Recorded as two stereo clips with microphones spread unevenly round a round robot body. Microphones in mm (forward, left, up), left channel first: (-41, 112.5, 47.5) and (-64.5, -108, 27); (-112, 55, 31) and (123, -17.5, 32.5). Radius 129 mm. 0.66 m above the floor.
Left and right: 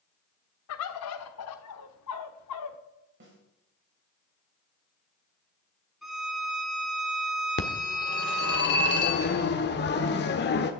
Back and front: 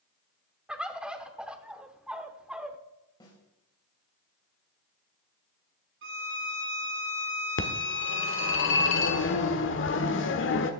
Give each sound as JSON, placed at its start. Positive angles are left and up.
{"t": 0.7, "sound": "a bird", "azimuth_deg": 70, "distance_m": 0.9}
{"t": 3.2, "sound": "a snare drum", "azimuth_deg": -125, "distance_m": 4.5}
{"t": 6.0, "sound": "a violin", "azimuth_deg": -10, "distance_m": 1.7}
{"t": 7.6, "sound": "a phone ringing", "azimuth_deg": 125, "distance_m": 1.3}